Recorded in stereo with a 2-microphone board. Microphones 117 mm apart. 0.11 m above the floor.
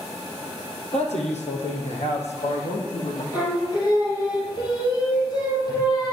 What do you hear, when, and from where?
0.9 s a man speaking: 65° left (ahead or behind), 3.5 m; by 3.2 s 70° left (ahead or behind), 5 m
3.3 s singing: 35° left (ahead or behind), 4.5 m